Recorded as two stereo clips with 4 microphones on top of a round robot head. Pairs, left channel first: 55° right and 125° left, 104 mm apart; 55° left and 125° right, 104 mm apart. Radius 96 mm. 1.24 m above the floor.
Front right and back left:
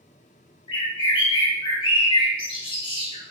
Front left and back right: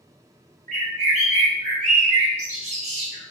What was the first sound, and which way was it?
A bird, 100° right.